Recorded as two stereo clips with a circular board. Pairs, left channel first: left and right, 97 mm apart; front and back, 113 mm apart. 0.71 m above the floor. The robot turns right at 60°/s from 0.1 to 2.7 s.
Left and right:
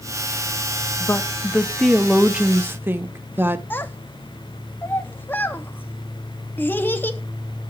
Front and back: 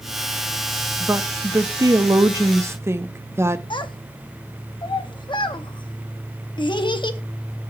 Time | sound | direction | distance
1.0 | a woman speaking | 125° left | 0.7 m
3.7 | a child speaking | 25° left | 0.7 m